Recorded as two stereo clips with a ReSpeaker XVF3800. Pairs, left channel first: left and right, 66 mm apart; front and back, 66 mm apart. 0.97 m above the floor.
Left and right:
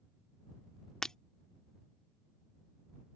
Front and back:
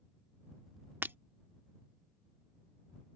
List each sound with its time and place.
1.0 s breaking glass: 160° left